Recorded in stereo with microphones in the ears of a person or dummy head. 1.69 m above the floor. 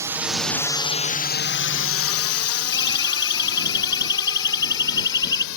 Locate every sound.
0.0 s a drone: 15° right (ahead or behind); by 5.6 s 75° left (ahead or behind)
2.7 s a siren: 25° left (ahead or behind); by 5.5 s 20° left (ahead or behind)